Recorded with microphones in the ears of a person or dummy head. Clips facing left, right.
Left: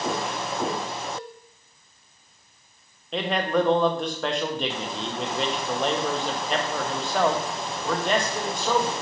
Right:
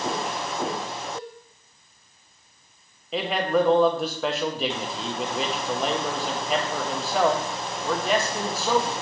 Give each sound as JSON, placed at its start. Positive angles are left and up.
{"t": 1.1, "sound": "a cowbell", "side_deg": -15, "distance_m": 1.9}
{"t": 3.1, "sound": "a man speaking", "side_deg": 0, "distance_m": 0.5}